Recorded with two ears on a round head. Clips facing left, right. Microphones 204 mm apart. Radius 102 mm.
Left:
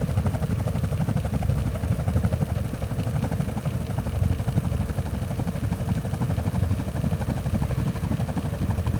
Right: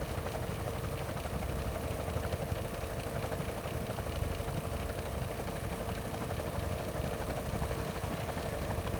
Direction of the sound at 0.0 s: 70° left (ahead or behind).